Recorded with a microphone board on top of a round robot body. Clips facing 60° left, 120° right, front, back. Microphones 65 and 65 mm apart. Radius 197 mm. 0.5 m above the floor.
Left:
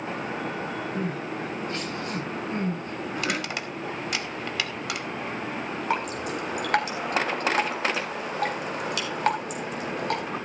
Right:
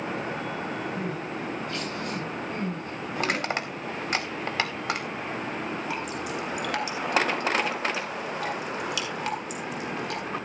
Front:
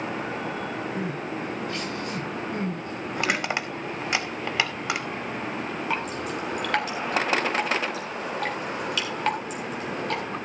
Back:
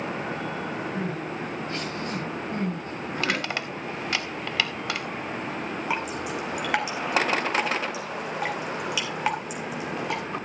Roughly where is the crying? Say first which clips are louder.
Left 2 dB, even; behind left.